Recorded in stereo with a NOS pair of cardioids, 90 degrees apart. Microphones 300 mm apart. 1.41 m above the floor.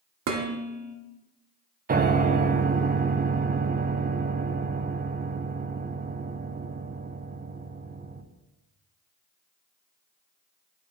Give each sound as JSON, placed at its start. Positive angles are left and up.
{"t": 0.3, "sound": "dishes clattering", "azimuth_deg": -65, "distance_m": 1.5}
{"t": 1.9, "sound": "a piano", "azimuth_deg": -30, "distance_m": 0.8}